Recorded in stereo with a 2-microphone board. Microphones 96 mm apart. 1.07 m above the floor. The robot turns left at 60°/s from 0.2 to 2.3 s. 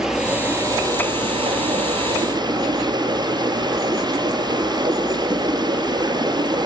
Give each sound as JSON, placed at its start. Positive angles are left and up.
{"t": 0.0, "sound": "running water", "azimuth_deg": -10, "distance_m": 4.0}